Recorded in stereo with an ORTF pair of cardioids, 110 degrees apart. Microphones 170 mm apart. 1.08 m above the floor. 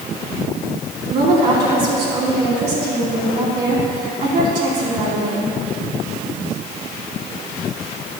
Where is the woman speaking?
70° right, 3.5 m.